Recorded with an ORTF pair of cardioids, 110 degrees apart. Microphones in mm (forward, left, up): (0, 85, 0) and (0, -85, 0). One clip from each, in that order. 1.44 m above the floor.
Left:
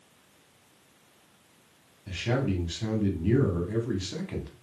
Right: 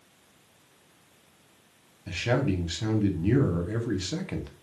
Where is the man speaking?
20° right, 0.8 m.